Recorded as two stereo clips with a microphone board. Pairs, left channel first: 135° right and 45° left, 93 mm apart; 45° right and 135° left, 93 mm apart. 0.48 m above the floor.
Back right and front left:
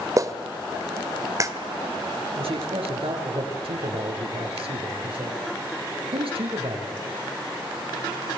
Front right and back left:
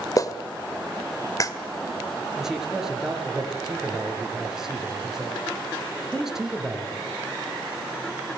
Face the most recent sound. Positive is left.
turn(degrees=50)